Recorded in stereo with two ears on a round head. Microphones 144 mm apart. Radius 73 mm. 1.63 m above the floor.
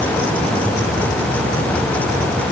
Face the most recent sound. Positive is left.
No sound to turn to.